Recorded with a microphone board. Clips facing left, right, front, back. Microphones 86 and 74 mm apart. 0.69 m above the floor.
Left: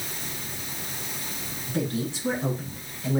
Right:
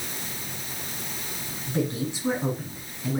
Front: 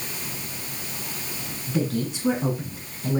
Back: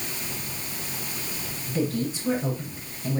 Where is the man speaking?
20° right, 9 m; by 3.2 s 10° right, 10 m.